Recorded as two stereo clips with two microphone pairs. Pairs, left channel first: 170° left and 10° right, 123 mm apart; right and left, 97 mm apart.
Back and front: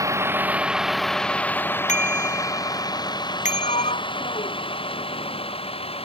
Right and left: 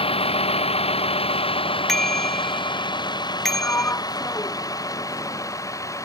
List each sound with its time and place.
0.0 s a vehicle: 75° right; by 6.0 s 150° right
1.9 s a bicycle bell: 175° right
3.5 s a sliding door: 155° right